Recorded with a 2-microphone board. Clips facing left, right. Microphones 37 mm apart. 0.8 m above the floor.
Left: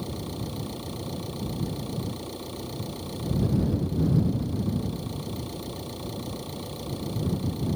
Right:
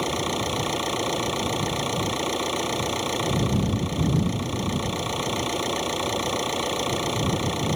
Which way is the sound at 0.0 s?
90° right.